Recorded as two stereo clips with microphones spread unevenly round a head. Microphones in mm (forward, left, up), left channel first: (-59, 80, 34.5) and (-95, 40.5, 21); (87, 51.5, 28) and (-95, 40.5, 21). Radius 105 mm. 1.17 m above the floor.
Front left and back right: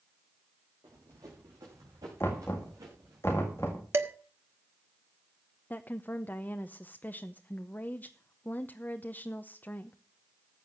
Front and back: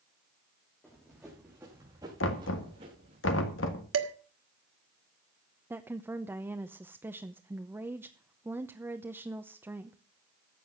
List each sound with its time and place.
0.8 s running footsteps: 85° right, 5 m; by 3.2 s 120° right, 6.5 m
2.2 s knocking: 25° right, 1.6 m
3.9 s dishes clattering: 170° right, 1.6 m
5.7 s a woman speaking: 110° left, 0.8 m